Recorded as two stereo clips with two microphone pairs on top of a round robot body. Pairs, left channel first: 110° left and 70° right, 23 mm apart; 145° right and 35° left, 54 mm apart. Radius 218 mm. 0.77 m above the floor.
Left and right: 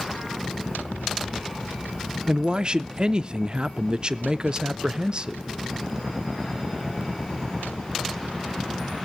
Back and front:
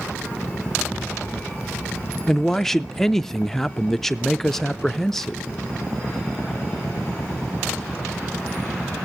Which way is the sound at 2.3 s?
75° right.